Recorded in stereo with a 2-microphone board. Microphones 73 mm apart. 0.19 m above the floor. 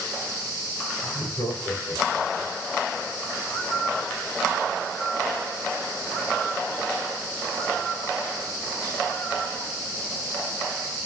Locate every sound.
1.0 s laughter: 45° left (ahead or behind), 5 m; by 2.5 s 55° left (ahead or behind), 5 m
3.5 s a bird: 20° left (ahead or behind), 6 m